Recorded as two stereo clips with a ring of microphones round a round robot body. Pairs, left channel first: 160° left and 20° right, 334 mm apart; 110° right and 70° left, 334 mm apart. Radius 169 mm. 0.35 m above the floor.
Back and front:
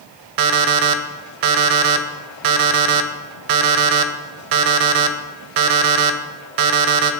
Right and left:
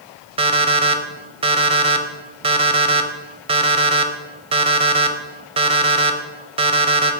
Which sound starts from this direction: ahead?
An alarm clock, at 0.4 s.